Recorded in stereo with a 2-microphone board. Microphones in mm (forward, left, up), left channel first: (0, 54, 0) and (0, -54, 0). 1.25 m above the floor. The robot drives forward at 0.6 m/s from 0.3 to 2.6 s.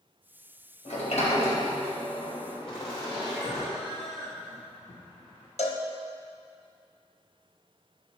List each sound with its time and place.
0.8 s a sliding door: 75° left (ahead or behind), 1.8 m; by 3.7 s 50° left (ahead or behind), 2 m
2.7 s laughter: 50° left (ahead or behind), 0.9 m
5.6 s a cowbell: 75° left (ahead or behind), 0.6 m